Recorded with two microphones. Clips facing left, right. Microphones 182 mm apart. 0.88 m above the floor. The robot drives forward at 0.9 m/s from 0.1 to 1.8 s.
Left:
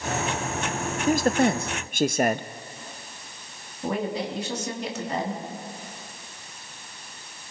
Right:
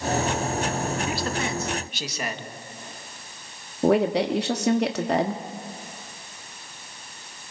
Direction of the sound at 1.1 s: 40° left (ahead or behind).